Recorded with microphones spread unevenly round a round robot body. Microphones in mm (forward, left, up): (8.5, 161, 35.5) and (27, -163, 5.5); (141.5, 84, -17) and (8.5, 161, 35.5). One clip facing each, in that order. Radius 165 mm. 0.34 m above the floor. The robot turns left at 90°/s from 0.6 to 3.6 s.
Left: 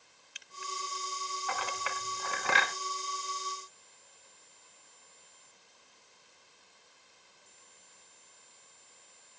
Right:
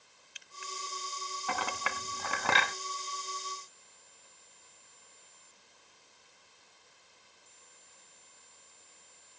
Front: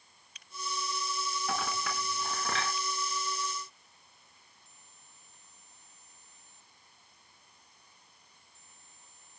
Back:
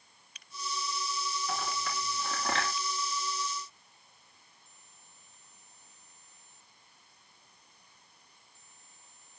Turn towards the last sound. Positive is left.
turn(degrees=135)